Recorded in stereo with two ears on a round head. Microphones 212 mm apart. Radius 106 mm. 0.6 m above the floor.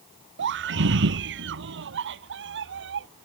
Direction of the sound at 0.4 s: 55° right (ahead or behind).